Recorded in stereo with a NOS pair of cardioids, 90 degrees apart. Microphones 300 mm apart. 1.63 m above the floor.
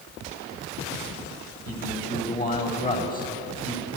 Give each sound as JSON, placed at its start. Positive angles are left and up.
{"t": 1.7, "sound": "a man speaking", "azimuth_deg": 25, "distance_m": 8.5}